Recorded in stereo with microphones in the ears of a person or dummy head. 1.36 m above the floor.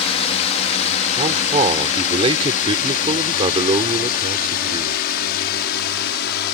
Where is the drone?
35° left (ahead or behind); by 6.5 s 60° left (ahead or behind).